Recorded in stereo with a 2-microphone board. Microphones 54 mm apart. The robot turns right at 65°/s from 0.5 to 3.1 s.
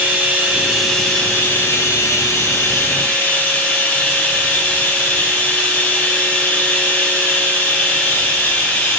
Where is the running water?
25° right, 4 m; by 9.0 s 145° left, 4 m.